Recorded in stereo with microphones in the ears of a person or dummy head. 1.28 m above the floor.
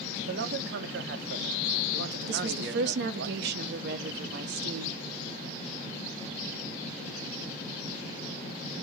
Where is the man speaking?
75° right (ahead or behind), 0.7 m.